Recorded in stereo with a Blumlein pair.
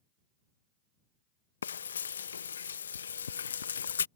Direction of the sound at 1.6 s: 70° left.